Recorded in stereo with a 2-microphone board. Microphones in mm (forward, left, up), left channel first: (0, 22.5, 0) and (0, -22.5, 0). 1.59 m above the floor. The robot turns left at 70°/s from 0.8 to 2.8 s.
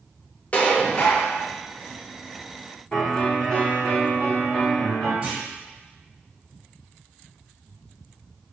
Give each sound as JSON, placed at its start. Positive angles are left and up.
{"t": 0.5, "sound": "dishes clattering", "azimuth_deg": 120, "distance_m": 0.7}
{"t": 2.9, "sound": "a piano", "side_deg": 20, "distance_m": 1.8}
{"t": 5.2, "sound": "a clunk", "side_deg": -30, "distance_m": 1.6}